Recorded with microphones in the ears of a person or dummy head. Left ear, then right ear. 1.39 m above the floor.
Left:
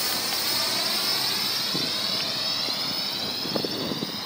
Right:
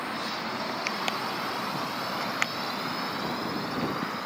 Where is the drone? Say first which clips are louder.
Left 5 dB; 70° left (ahead or behind); by 4.3 s 40° left (ahead or behind).